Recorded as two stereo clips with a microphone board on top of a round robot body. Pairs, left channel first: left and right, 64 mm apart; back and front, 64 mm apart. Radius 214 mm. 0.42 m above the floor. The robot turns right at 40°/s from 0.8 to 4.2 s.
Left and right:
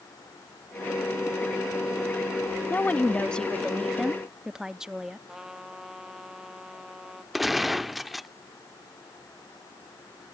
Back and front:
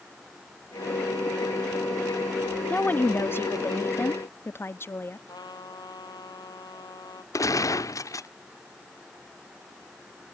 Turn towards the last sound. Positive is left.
turn(degrees=180)